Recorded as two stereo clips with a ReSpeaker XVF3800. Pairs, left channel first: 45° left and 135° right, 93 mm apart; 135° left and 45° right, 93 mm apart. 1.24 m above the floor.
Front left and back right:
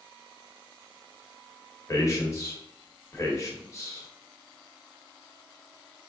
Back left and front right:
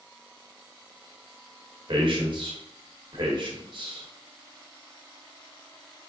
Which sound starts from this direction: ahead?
A man speaking, at 1.9 s.